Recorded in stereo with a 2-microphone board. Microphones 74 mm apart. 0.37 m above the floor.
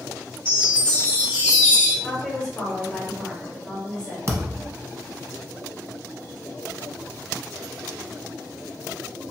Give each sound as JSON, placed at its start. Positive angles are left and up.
{"t": 0.5, "sound": "a chime", "side_deg": 15, "distance_m": 1.2}
{"t": 2.0, "sound": "a woman speaking", "side_deg": 10, "distance_m": 1.3}
{"t": 4.3, "sound": "a thud", "side_deg": -40, "distance_m": 0.6}